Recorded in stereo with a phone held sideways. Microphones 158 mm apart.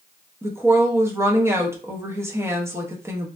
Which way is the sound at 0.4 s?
15° right (ahead or behind).